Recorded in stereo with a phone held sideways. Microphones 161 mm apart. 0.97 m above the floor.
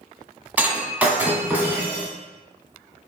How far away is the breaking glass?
About 1.2 m.